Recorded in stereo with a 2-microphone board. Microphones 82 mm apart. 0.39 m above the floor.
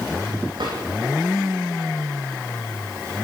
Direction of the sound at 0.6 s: 65° right (ahead or behind).